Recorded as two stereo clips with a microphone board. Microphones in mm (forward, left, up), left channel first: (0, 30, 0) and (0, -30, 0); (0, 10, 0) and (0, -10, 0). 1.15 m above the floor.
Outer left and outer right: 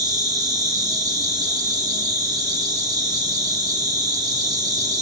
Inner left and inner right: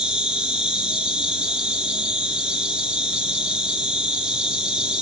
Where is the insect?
70° right (ahead or behind), 1.2 m.